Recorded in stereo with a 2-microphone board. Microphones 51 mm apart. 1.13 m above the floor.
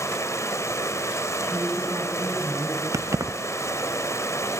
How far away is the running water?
About 3.5 m.